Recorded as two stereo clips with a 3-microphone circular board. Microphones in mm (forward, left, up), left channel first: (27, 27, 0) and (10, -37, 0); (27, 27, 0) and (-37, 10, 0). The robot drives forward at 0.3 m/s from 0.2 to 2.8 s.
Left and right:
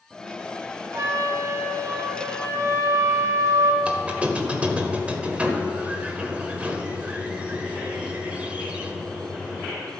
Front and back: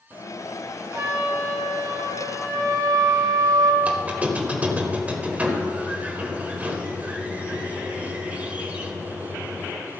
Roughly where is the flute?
Behind right.